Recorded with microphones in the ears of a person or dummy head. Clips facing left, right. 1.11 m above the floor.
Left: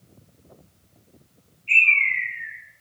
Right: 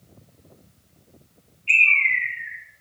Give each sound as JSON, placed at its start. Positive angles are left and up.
{"t": 1.7, "sound": "a bird", "side_deg": -45, "distance_m": 4.0}